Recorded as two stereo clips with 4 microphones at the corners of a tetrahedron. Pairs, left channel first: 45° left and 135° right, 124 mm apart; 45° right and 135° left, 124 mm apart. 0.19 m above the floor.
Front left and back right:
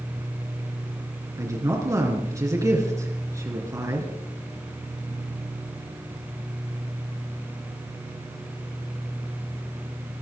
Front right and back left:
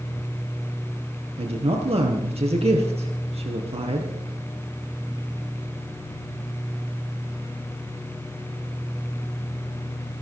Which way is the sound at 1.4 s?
160° left.